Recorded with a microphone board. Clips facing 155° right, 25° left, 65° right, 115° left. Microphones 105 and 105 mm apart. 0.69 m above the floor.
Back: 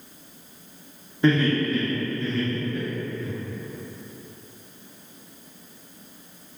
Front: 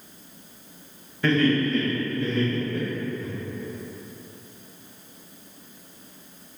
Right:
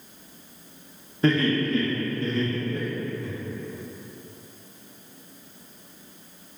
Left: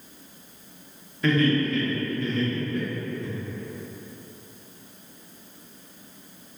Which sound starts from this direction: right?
Laughter, at 1.2 s.